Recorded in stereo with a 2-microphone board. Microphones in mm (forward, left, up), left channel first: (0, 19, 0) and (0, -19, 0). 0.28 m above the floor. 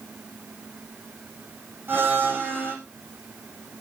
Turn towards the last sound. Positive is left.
turn(degrees=-70)  # may be behind; listen again after turning